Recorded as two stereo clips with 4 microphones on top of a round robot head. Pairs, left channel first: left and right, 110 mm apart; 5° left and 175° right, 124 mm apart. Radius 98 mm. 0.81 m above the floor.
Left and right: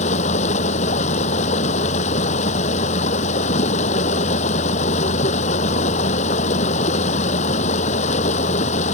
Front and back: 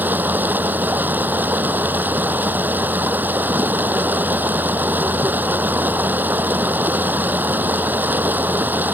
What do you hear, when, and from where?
0.0 s running water: 110° left